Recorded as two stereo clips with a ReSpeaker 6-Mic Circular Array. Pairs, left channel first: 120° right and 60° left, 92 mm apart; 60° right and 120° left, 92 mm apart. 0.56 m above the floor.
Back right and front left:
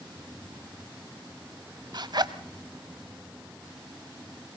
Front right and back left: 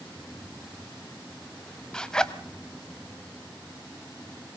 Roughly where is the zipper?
Ahead.